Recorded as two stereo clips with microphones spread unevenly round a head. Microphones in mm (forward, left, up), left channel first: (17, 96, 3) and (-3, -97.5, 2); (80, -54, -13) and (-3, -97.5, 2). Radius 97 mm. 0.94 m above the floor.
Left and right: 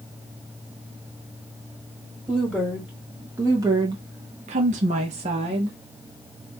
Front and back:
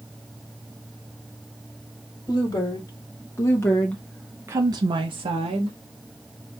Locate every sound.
2.3 s a woman speaking: 10° right, 1.5 m; by 5.8 s 155° right, 1.0 m